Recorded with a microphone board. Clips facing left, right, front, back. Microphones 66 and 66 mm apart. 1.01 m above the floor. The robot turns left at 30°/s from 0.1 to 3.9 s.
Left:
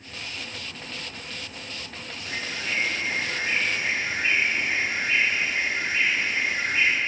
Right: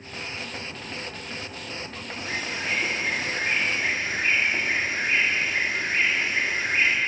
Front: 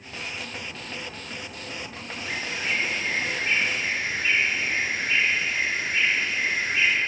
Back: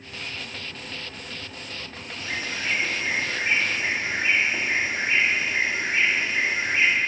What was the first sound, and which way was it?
A bird, 90° right.